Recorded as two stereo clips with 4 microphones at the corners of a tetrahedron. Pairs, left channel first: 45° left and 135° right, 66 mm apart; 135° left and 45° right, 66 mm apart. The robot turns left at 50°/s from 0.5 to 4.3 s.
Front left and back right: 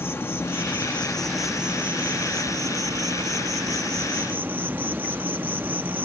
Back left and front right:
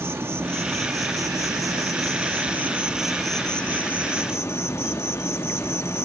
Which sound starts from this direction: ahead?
An insect, at 0.0 s.